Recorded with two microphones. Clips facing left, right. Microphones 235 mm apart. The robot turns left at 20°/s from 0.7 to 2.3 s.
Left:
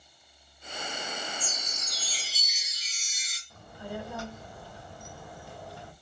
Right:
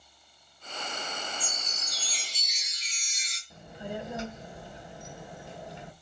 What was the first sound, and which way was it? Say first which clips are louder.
A chime: left 1 dB; 10° right (ahead or behind).